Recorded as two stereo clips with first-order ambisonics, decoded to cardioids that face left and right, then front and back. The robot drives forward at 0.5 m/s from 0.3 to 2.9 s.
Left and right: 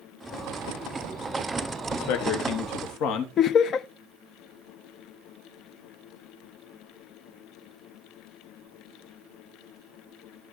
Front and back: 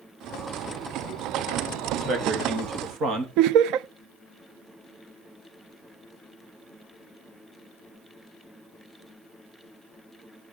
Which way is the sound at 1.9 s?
115° left.